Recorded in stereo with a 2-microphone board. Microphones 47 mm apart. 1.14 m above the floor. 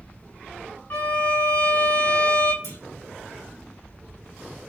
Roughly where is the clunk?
Left.